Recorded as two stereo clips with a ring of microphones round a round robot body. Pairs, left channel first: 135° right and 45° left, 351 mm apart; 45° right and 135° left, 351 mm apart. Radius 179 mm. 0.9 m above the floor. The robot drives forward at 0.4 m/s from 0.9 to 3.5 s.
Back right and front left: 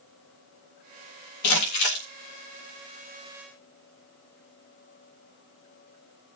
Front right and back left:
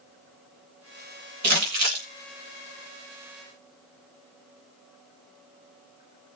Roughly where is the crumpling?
Behind.